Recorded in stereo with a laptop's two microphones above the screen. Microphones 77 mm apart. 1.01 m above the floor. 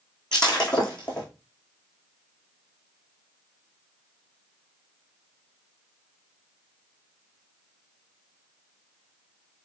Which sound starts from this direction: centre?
Breaking glass, at 0.3 s.